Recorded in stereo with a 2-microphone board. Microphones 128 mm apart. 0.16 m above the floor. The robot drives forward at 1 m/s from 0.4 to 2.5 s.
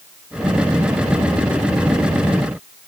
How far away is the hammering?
I don't hear hammering.